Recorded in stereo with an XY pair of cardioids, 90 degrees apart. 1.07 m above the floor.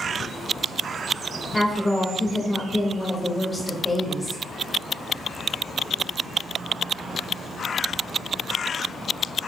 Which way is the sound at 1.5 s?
15° left.